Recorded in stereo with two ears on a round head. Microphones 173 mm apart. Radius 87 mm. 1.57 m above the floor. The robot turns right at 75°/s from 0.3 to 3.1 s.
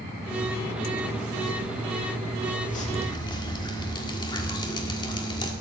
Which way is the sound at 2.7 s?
45° left (ahead or behind).